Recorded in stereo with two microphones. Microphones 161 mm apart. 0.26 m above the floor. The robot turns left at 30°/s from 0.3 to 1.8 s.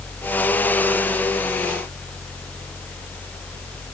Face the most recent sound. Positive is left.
No sound to turn to.